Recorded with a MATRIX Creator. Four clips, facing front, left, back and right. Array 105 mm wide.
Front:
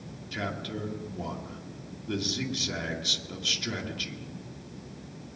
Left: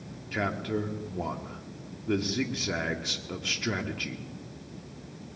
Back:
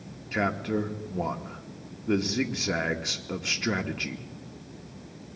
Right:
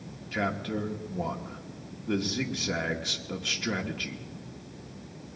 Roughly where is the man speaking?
Behind.